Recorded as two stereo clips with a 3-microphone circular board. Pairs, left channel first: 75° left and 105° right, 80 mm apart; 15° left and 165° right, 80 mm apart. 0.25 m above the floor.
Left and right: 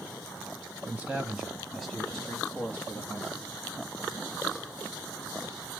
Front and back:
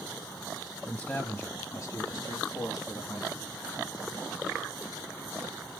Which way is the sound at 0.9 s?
50° right.